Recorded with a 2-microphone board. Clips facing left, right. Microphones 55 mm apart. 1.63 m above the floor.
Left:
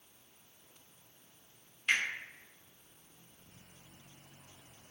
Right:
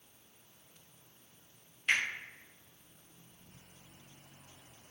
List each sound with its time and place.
1.9 s a finger snap: centre (ahead or behind), 1.1 m